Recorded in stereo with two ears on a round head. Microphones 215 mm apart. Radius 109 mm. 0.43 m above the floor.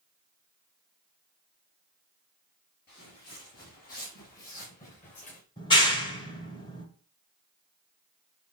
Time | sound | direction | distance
2.9 | footsteps | 45° left (ahead or behind) | 6 m
5.6 | a clap | 20° left (ahead or behind) | 1.4 m